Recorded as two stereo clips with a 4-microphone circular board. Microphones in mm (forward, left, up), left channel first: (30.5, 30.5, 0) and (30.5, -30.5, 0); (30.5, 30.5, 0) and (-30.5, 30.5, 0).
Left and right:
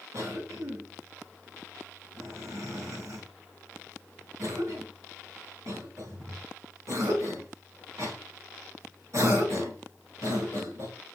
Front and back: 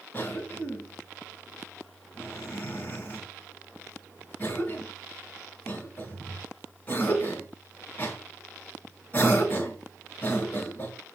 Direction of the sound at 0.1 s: 65° right.